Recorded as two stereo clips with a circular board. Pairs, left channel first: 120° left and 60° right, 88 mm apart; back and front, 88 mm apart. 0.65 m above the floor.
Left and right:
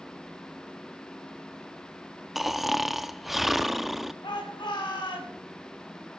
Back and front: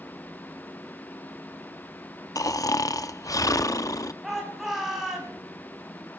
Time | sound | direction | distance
2.4 | snoring | 145° right | 0.5 m
4.2 | a shout | 90° left | 4.5 m